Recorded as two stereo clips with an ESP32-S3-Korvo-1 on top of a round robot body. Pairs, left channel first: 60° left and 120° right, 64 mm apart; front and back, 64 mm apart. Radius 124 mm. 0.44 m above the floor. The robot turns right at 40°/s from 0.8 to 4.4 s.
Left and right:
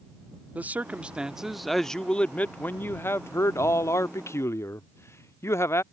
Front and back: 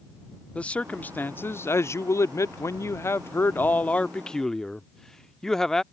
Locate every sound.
0.6 s a man speaking: 65° right; by 5.8 s 80° left